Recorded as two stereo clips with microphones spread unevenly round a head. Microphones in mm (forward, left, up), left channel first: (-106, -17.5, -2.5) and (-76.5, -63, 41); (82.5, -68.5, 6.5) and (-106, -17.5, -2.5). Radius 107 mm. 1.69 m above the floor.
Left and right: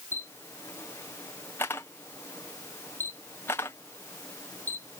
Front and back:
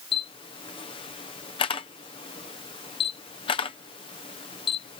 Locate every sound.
0.1 s a camera shutter: 55° left